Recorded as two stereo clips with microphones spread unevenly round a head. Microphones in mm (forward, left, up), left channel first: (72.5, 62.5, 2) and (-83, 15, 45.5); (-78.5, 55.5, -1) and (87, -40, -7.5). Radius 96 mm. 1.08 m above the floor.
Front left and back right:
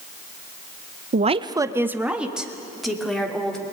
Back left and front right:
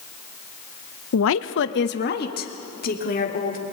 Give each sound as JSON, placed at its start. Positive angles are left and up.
{"t": 1.1, "sound": "a woman speaking", "azimuth_deg": 150, "distance_m": 0.6}